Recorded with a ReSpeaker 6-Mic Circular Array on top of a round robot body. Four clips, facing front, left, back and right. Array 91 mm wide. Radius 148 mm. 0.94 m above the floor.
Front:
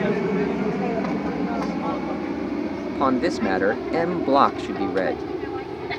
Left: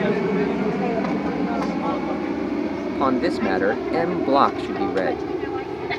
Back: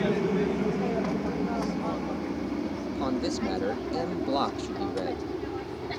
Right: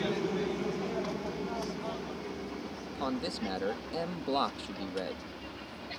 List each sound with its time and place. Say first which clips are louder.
0.0 s an aircraft: left 11 dB, front 4 dB; 60° left; by 6.0 s 65° left
2.9 s a man speaking: left 14 dB, front 10 dB; 40° left